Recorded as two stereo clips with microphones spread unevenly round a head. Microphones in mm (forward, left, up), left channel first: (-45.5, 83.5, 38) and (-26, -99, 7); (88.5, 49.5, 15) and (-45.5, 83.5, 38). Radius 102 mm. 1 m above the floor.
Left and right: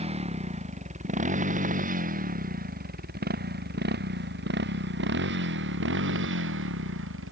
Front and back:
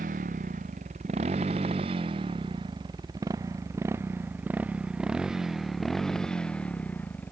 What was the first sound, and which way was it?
A motorcycle, 140° right.